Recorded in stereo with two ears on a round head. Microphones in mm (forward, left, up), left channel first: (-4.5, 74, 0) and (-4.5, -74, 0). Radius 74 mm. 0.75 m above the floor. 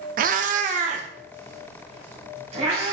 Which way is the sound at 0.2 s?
55° right (ahead or behind).